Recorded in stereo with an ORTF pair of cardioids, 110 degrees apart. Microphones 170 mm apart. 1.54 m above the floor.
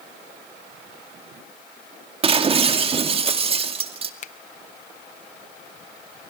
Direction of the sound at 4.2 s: 45° left.